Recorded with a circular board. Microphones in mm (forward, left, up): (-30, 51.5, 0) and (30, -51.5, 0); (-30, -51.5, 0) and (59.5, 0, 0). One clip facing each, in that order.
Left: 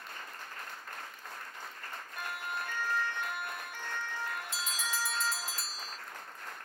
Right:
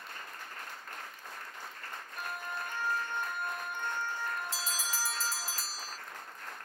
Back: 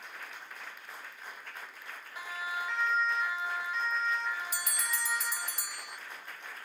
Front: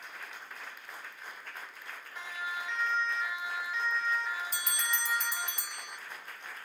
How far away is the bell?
About 0.7 m.